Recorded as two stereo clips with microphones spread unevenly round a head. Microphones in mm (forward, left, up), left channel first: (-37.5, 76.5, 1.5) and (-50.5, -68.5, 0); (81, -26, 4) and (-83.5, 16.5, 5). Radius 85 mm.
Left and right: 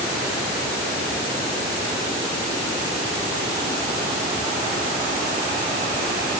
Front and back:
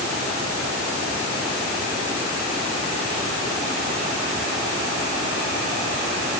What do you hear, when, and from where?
Only background noise.